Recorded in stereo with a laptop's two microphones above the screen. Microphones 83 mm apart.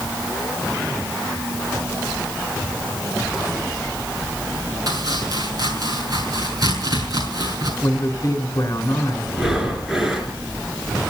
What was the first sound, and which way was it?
Chopping, 50° right (ahead or behind).